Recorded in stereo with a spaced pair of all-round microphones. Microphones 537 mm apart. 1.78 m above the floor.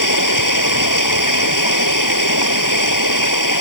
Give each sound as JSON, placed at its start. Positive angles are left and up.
{"t": 0.0, "sound": "running water", "side_deg": 35}